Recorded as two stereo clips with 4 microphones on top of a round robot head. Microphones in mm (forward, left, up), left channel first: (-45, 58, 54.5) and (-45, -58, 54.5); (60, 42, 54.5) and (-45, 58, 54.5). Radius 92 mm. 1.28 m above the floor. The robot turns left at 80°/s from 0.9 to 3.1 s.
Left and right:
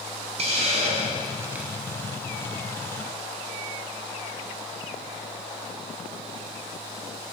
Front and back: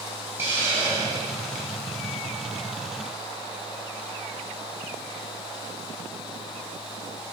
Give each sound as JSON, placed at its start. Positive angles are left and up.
{"t": 0.4, "sound": "a hiss", "azimuth_deg": -110, "distance_m": 1.0}